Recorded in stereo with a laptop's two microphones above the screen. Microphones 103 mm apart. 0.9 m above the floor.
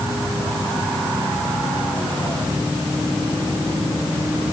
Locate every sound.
Only background noise.